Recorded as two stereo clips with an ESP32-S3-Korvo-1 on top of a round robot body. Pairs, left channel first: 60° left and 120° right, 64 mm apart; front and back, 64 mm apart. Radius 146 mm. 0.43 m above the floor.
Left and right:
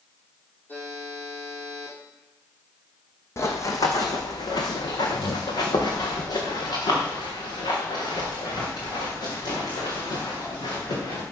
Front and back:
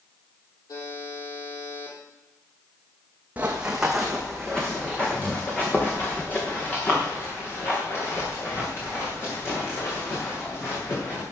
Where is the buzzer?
5° right, 6 m.